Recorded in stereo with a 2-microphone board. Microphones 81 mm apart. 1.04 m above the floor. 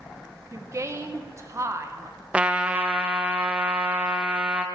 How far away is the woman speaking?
About 0.7 m.